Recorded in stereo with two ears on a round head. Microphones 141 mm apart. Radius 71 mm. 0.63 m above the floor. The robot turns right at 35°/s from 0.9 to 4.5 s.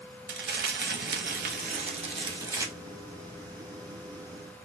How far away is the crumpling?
About 0.9 m.